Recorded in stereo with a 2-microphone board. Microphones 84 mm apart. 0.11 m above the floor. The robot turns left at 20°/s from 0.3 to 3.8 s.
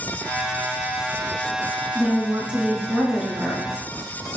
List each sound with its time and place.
1.9 s a woman speaking: 145° right, 1.3 m; by 3.7 s straight behind, 1.3 m